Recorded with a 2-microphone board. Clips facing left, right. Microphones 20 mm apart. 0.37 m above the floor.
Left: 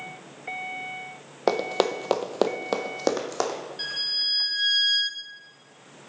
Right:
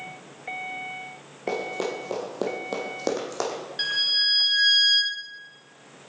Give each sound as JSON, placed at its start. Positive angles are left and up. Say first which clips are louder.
{"t": 1.5, "sound": "running footsteps", "louder": "left 5 dB", "side_deg": 65, "distance_m": 1.0}
{"t": 3.8, "sound": "a violin", "louder": "right 5 dB", "side_deg": -35, "distance_m": 0.6}